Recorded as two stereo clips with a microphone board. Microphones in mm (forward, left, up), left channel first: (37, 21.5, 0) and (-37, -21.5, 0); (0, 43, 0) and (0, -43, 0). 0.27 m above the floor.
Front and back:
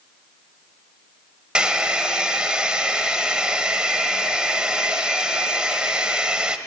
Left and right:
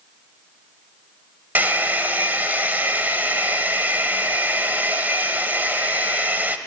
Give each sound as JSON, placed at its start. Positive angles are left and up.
{"t": 1.6, "sound": "a hair dryer", "azimuth_deg": -90, "distance_m": 1.1}